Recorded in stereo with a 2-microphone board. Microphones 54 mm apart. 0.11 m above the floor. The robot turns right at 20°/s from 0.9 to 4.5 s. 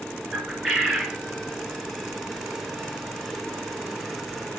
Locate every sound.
0.3 s a bird: 10° right (ahead or behind), 1.6 m; by 1.2 s 5° right (ahead or behind), 1.6 m